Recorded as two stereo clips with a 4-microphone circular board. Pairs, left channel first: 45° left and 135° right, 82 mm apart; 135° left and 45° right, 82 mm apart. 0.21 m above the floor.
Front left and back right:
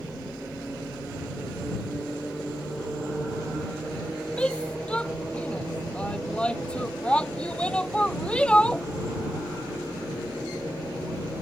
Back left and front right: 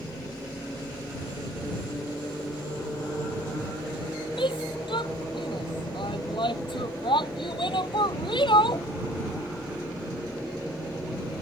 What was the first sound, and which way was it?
A shout, 120° left.